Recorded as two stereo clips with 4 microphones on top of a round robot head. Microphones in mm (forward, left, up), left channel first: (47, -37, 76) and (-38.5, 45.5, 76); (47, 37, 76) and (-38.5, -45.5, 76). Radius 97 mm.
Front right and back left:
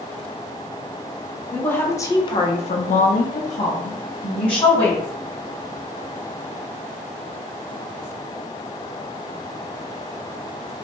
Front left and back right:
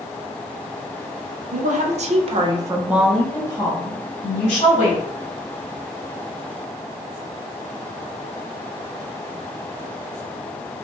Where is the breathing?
I don't hear breathing.